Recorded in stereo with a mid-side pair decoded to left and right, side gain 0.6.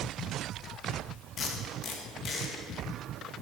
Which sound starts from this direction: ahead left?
Tape being pulled, at 1.4 s.